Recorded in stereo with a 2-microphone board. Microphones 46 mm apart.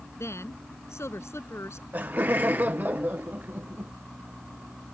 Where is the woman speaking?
85° left.